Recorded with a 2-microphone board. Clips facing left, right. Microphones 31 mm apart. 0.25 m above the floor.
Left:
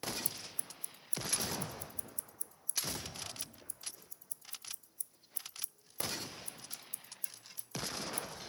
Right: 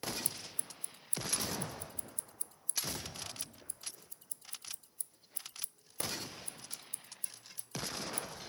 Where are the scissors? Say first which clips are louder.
Right 1 dB; 55° right (ahead or behind).